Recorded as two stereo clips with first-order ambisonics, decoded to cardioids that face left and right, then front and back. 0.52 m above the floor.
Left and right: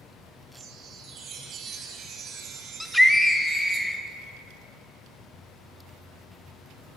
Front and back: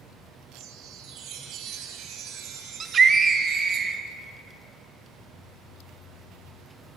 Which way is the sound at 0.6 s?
145° right.